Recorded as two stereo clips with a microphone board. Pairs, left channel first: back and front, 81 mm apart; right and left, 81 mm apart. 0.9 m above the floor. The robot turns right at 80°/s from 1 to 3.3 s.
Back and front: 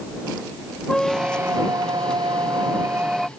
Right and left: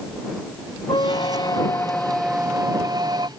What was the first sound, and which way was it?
A squeak, 95° right.